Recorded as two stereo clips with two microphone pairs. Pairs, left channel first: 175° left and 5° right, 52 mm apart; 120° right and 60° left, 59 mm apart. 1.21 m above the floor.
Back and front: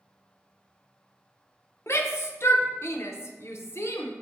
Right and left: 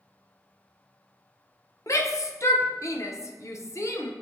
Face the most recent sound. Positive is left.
turn(degrees=-155)